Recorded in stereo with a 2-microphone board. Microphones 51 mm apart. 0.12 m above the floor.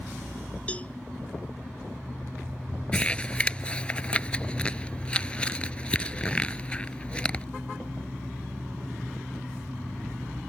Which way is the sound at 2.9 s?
20° left (ahead or behind).